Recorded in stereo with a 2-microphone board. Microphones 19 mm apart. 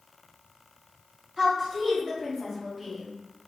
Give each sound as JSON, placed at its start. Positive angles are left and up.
{"t": 1.4, "sound": "a woman speaking", "side_deg": -35, "distance_m": 2.0}